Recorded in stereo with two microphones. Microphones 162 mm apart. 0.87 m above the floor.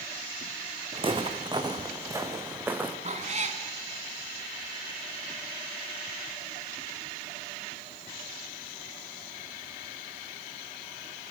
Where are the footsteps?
35° right (ahead or behind), 2.5 m; by 3.0 s 10° right (ahead or behind), 3 m.